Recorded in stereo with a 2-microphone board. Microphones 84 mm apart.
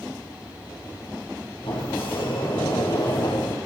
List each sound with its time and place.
1.6 s a sliding door: 70° left (ahead or behind), 5.5 m